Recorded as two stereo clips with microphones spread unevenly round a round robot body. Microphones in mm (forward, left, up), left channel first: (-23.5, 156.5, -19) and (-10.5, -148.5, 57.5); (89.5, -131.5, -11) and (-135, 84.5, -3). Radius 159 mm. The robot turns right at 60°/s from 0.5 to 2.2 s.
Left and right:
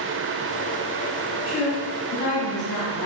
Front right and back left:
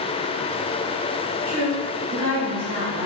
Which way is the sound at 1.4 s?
40° left.